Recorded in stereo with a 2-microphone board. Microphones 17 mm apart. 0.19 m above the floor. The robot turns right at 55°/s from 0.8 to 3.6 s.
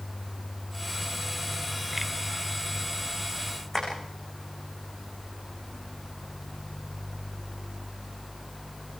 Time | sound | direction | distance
3.7 | tapping | 30° left (ahead or behind) | 9 m